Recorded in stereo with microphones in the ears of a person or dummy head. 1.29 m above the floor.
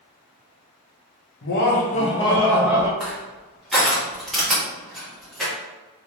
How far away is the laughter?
About 0.9 m.